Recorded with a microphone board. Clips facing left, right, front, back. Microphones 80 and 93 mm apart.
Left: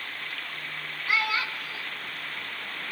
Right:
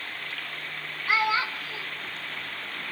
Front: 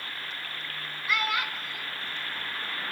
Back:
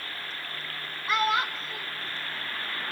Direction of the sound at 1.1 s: 140° right.